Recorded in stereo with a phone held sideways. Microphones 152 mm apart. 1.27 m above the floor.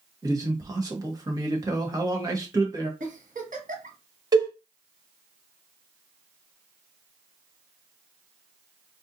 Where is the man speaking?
25° right (ahead or behind), 1.2 m.